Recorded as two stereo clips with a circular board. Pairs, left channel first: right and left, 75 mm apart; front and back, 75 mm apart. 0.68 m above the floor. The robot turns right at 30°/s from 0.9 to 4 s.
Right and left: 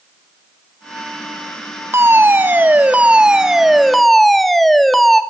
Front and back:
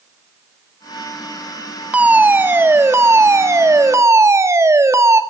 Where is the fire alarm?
120° left, 2 m; by 5.2 s straight behind, 2 m.